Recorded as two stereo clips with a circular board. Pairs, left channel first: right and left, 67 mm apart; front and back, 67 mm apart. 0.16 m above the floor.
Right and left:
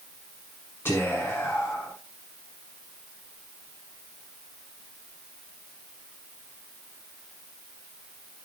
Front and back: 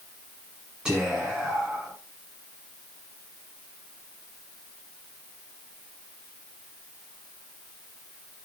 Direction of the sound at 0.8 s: 110° right.